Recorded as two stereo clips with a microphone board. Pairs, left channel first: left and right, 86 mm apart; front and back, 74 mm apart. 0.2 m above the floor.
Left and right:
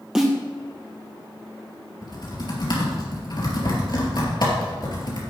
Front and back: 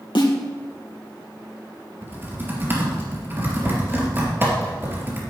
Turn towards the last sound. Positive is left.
turn(degrees=120)